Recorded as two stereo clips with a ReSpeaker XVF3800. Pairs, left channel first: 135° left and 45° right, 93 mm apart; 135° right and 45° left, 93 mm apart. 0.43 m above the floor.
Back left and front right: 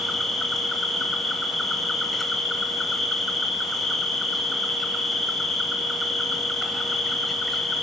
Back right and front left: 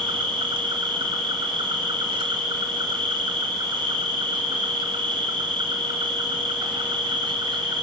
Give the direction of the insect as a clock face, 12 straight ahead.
10 o'clock.